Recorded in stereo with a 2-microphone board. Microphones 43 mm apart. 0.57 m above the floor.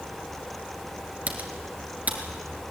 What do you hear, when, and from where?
1.3 s typing on a keyboard: 40° right (ahead or behind), 2.5 m